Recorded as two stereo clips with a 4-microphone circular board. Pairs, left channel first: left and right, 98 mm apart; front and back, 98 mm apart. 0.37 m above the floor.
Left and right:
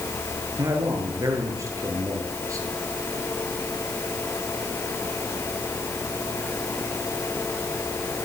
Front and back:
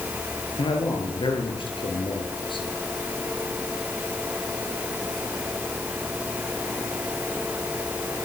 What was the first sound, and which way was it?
A man speaking, 35° right.